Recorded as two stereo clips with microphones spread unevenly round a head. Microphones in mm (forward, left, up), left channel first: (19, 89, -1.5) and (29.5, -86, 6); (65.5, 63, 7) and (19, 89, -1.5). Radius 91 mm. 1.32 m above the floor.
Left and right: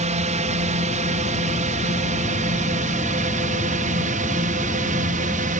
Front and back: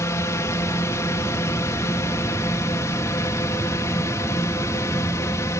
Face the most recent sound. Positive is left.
turn(degrees=-50)